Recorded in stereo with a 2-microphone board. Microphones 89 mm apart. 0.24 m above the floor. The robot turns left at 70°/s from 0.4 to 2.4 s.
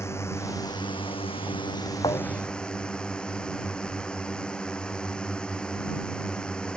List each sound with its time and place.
0.0 s a drone: 150° left; by 6.8 s 10° left
2.0 s a thud: 60° left (ahead or behind); by 2.6 s 40° left (ahead or behind)